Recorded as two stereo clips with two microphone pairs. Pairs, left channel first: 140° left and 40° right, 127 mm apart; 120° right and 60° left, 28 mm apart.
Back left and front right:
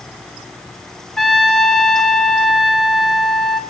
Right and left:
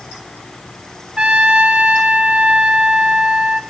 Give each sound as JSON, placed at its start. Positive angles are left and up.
{"t": 1.2, "sound": "a trumpet", "azimuth_deg": 60, "distance_m": 0.8}